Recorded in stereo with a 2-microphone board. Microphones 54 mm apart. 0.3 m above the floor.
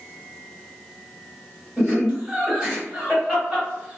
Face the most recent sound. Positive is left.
turn(degrees=-5)  # may be behind; listen again after turning